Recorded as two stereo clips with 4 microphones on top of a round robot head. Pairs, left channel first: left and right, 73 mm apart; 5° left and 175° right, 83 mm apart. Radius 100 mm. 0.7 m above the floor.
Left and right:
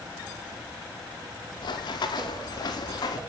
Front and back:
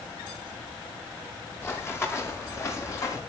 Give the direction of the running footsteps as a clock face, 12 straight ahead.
10 o'clock.